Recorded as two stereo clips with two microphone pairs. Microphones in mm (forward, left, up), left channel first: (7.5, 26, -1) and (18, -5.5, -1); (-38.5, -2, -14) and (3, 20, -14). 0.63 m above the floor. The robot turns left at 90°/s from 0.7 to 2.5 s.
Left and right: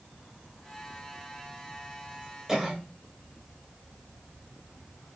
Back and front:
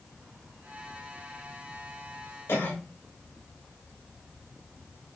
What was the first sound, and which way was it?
A cough, 140° right.